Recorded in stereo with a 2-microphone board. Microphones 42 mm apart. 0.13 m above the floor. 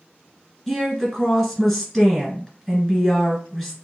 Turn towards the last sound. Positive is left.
turn(degrees=10)  # may be behind; listen again after turning